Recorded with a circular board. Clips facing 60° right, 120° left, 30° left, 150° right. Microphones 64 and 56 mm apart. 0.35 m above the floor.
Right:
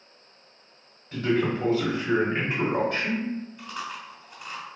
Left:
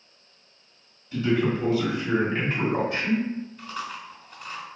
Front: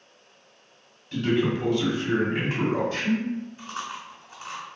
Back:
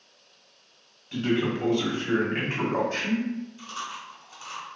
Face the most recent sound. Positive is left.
turn(degrees=25)